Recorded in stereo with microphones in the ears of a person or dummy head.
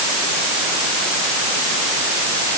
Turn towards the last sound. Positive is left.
No sound to turn to.